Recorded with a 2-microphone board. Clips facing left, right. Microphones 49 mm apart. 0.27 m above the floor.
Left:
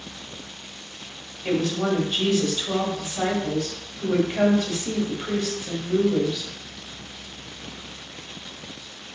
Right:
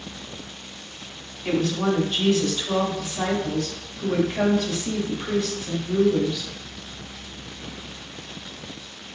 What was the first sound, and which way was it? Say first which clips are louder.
A woman speaking: even; 20° left (ahead or behind).